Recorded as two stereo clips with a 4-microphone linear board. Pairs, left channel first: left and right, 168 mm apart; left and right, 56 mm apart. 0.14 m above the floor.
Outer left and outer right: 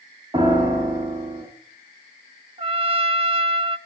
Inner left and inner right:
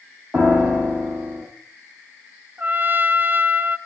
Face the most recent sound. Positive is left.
turn(degrees=-35)  # may be behind; listen again after turning